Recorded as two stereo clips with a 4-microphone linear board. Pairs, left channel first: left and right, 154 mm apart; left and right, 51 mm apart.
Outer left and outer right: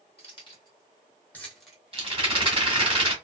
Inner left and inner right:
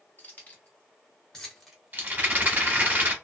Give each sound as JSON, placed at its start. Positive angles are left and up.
{"t": 0.2, "sound": "keys jangling", "side_deg": 40, "distance_m": 1.3}
{"t": 1.9, "sound": "a rattle", "side_deg": -35, "distance_m": 1.0}